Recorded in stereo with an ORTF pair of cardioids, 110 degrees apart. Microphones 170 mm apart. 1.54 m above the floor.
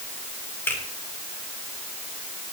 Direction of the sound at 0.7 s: 10° left.